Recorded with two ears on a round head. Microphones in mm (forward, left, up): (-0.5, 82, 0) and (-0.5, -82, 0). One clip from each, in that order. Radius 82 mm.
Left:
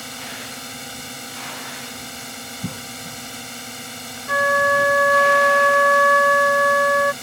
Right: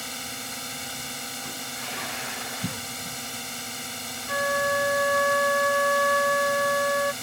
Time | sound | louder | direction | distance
0.0 | a drone | left 2 dB | 15° right (ahead or behind) | ?
2.6 | a cough | left 1 dB | 75° right (ahead or behind) | ?
4.3 | a flute | left 8 dB | 50° left (ahead or behind) | ?